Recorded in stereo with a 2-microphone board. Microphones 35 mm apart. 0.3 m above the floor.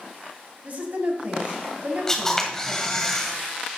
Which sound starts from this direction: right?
A woman speaking, at 0.6 s.